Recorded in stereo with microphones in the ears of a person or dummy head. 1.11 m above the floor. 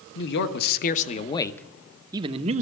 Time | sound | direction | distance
0.1 | a man speaking | 65° left (ahead or behind) | 1.2 m